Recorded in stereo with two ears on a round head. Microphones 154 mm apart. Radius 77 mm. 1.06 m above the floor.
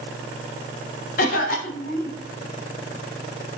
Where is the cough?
50° left (ahead or behind), 0.6 m.